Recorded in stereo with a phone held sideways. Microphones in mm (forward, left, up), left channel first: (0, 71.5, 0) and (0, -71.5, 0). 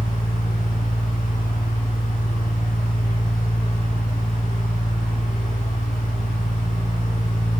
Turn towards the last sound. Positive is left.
turn(degrees=75)  # may be behind; listen again after turning